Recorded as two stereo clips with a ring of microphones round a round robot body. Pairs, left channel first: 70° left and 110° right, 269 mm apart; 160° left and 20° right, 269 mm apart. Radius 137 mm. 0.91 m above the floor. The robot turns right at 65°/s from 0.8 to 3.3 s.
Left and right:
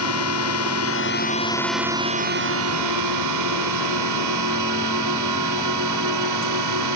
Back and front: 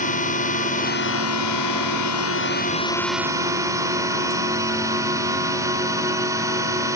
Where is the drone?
95° left; by 7.0 s 100° right.